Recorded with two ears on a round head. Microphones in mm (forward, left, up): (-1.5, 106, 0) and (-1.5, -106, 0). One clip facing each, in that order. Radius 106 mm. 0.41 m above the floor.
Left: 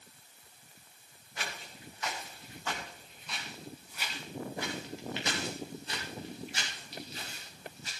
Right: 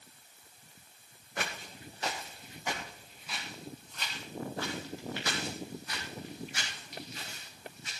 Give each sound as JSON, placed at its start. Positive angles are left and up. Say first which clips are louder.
{"t": 1.4, "sound": "footsteps", "louder": "right 4 dB", "side_deg": -45, "distance_m": 2.5}